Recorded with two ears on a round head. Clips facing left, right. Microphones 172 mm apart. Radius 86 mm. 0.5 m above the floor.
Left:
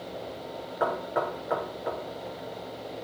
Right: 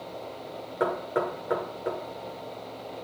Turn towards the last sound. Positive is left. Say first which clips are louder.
# right 1 dB
turn(degrees=-45)  # may be behind; listen again after turning